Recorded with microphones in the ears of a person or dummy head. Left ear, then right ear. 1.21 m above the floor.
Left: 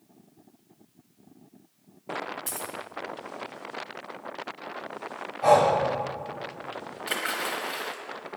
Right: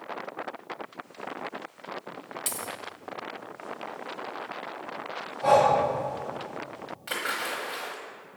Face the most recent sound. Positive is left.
turn(degrees=10)  # may be behind; listen again after turning